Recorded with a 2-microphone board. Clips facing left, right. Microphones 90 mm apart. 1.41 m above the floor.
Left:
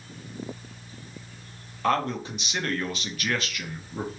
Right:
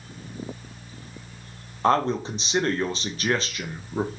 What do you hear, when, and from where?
1.8 s a man speaking: 30° right (ahead or behind), 0.8 m